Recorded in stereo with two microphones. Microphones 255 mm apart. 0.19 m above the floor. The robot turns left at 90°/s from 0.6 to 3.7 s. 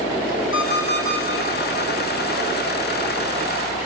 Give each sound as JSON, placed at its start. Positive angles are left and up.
{"t": 0.5, "sound": "an alarm clock", "azimuth_deg": 55, "distance_m": 4.5}